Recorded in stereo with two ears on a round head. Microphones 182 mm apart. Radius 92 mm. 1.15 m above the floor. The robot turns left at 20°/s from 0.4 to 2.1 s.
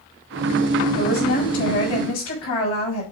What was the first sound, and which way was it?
A woman speaking, 65° left (ahead or behind).